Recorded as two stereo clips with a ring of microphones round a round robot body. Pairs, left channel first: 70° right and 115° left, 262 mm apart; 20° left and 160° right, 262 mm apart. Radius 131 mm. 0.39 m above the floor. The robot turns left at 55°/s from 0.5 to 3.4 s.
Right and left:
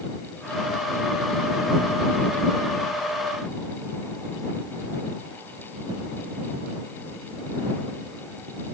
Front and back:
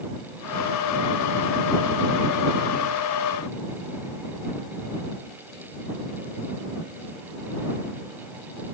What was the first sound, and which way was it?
Only background noise.